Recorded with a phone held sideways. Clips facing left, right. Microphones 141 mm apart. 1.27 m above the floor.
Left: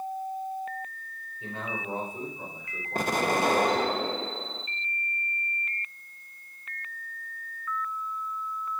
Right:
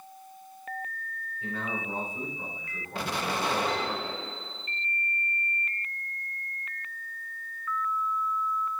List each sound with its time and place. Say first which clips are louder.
1.4 s a man speaking: right 1 dB; 20° left (ahead or behind), 5 m; by 4.0 s 25° left (ahead or behind), 3.5 m
3.0 s an explosion: left 5 dB; 50° left (ahead or behind), 0.7 m